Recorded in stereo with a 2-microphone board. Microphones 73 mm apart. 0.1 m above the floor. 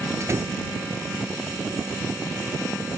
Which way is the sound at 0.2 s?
40° right (ahead or behind).